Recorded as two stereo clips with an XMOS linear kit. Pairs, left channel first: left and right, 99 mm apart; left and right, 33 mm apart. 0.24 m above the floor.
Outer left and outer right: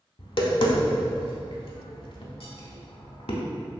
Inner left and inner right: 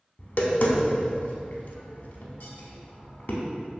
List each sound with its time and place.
0.2 s tapping: 65° left (ahead or behind), 0.5 m